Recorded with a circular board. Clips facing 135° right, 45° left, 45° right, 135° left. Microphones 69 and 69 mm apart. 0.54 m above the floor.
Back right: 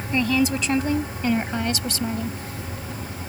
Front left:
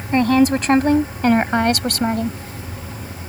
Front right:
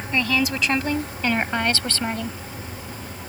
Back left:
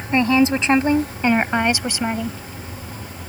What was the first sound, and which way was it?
A woman speaking, 80° left.